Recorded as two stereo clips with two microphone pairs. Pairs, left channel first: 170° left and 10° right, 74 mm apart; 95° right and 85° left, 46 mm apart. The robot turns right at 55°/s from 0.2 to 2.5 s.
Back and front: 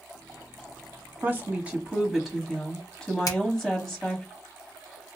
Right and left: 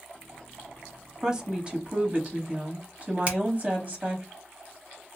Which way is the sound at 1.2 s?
20° left.